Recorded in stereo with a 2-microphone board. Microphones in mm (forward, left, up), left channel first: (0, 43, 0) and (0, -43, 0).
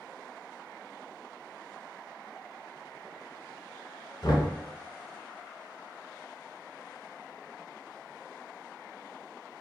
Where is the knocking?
50° left (ahead or behind), 1.0 m.